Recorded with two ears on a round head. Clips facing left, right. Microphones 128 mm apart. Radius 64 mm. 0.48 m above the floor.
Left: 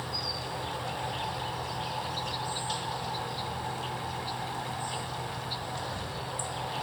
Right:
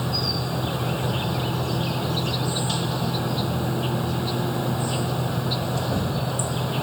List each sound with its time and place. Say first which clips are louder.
0.0 s an insect: right 9 dB; 70° right (ahead or behind)